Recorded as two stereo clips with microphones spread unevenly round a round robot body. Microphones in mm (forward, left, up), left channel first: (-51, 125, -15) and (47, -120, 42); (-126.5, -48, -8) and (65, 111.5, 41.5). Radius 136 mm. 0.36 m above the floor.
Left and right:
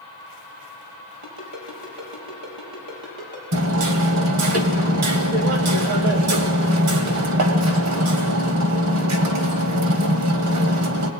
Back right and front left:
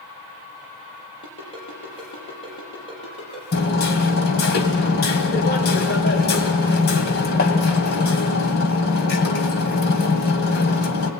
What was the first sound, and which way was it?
A ringtone, 70° right.